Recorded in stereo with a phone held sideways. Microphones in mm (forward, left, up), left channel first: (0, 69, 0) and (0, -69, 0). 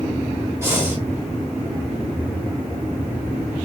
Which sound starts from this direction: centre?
Breathing, at 0.6 s.